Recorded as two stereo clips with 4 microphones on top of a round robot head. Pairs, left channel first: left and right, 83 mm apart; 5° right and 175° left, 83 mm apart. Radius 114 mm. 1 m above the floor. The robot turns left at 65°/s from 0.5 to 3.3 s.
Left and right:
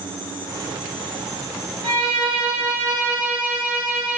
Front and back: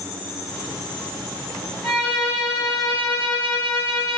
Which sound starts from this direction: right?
A violin, at 1.8 s.